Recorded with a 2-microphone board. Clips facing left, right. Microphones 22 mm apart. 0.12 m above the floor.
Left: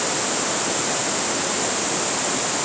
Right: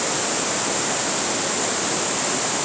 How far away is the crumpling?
No crumpling in this recording.